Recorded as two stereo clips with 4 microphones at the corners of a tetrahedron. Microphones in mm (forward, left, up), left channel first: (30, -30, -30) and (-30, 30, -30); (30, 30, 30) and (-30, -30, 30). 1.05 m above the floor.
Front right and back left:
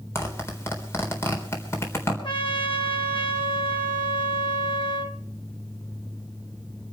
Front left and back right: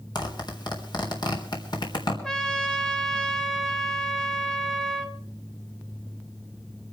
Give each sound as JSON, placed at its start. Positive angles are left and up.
{"t": 0.1, "sound": "a zipper", "azimuth_deg": 15, "distance_m": 3.5}
{"t": 2.2, "sound": "a trumpet", "azimuth_deg": -40, "distance_m": 4.0}